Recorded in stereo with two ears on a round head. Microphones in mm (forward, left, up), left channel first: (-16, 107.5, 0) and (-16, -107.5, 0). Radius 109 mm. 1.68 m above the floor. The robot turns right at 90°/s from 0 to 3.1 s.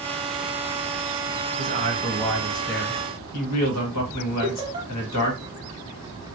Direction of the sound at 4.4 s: 20° right (ahead or behind).